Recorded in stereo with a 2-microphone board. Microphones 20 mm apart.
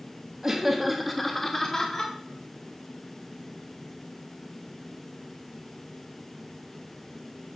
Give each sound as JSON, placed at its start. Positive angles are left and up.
{"t": 0.4, "sound": "laughter", "side_deg": -15, "distance_m": 1.0}